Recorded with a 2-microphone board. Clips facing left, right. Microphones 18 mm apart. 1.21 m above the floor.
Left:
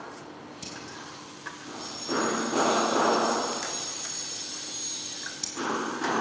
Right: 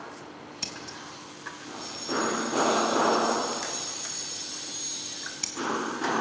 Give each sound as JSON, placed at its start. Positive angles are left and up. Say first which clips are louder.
{"t": 0.6, "sound": "scissors", "louder": "right 4 dB", "side_deg": -50, "distance_m": 3.0}